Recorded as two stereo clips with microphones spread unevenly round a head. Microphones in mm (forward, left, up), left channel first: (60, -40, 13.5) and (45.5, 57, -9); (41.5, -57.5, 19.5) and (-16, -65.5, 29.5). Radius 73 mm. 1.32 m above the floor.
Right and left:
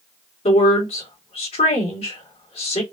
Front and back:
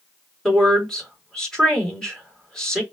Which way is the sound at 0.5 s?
75° right.